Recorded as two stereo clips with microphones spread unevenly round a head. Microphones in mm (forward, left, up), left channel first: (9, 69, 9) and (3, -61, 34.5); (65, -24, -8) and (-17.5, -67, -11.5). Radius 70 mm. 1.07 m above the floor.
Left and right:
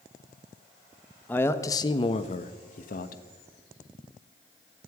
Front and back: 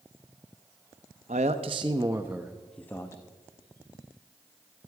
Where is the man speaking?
165° left, 1.0 m; by 3.2 s 100° left, 1.1 m.